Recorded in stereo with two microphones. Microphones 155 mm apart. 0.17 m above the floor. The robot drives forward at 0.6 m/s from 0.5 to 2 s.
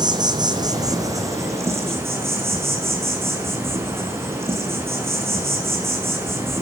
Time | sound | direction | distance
0.0 | an insect | 30° right (ahead or behind) | 1.3 m